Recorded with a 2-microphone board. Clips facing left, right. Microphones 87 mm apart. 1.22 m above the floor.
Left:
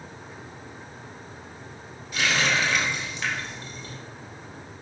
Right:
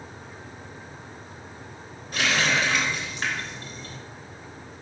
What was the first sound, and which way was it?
A running tap, 50° right (ahead or behind).